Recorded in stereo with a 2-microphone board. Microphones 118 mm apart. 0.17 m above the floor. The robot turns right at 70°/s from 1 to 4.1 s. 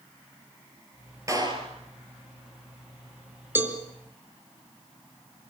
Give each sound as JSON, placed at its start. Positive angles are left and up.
{"t": 1.3, "sound": "a clap", "azimuth_deg": -150, "distance_m": 3.0}
{"t": 3.5, "sound": "a cowbell", "side_deg": -20, "distance_m": 2.5}